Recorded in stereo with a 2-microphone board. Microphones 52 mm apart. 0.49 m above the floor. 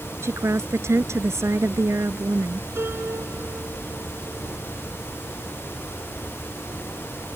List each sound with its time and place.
0.2 s a woman speaking: 60° right (ahead or behind)
2.8 s a piano: 50° right (ahead or behind)